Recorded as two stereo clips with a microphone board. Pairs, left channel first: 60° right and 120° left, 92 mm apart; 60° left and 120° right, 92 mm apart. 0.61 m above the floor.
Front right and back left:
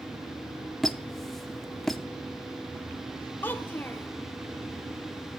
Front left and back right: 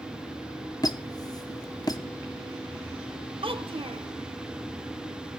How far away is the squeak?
About 0.8 m.